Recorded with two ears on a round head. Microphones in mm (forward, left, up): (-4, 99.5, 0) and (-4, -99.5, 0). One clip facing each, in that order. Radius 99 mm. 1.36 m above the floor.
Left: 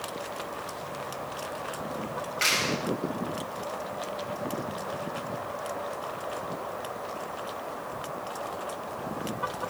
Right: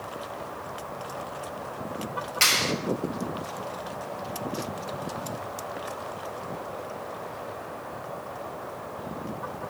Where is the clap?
60° right (ahead or behind), 5.5 m.